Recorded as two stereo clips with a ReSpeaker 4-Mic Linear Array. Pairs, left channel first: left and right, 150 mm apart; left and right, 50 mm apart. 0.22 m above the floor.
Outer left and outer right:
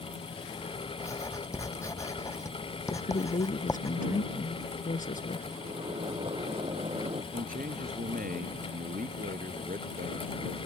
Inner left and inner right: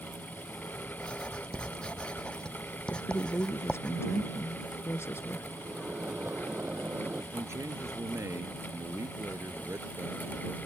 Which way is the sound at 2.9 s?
60° left (ahead or behind).